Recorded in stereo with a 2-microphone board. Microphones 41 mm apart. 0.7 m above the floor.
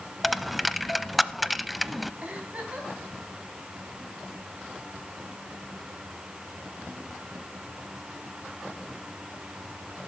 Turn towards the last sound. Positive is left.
turn(degrees=-40)  # may be behind; listen again after turning